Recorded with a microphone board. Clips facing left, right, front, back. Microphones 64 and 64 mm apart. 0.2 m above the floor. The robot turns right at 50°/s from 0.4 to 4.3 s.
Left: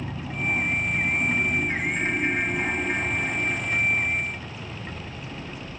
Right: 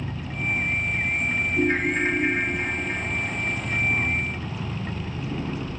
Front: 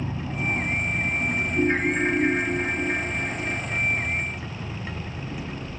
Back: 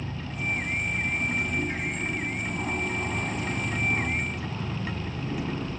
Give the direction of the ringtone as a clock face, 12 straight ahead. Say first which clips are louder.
Right 4 dB, front 8 dB; 2 o'clock.